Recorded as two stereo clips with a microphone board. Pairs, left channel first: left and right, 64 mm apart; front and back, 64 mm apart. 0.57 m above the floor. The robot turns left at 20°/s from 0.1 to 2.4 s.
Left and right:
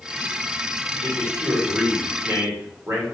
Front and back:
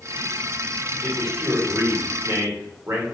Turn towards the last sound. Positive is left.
turn(degrees=-135)